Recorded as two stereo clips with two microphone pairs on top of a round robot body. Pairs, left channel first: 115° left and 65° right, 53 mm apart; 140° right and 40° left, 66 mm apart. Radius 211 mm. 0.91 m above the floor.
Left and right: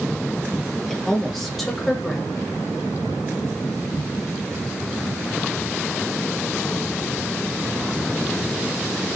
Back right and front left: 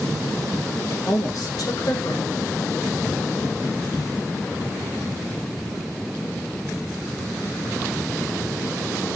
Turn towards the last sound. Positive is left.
turn(degrees=-165)